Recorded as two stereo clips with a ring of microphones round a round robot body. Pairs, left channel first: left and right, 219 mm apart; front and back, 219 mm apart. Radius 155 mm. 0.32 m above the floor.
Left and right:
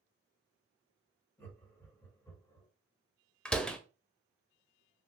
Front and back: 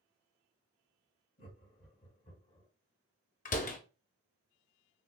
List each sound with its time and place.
1.4 s laughter: 10° left, 1.8 m; by 2.7 s 40° left, 1.5 m
3.5 s a door slam: 5° left, 0.6 m